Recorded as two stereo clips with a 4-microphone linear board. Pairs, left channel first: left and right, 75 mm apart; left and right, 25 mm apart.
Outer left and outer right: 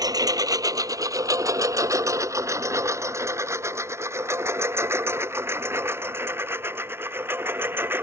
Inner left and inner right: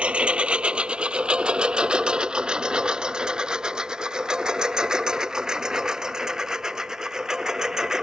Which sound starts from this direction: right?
A lawn mower, at 0.0 s.